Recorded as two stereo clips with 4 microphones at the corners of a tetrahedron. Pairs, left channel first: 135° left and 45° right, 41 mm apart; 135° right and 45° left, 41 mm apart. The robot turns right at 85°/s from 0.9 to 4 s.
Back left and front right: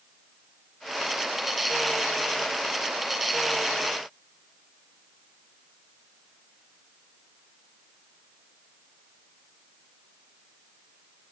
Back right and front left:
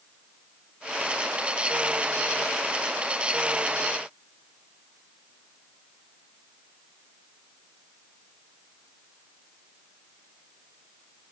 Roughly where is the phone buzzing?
I don't hear a phone buzzing.